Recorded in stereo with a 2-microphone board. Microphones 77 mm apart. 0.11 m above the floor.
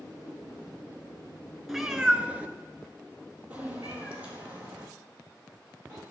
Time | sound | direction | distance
1.7 | a cat meowing | centre (ahead or behind) | 0.7 m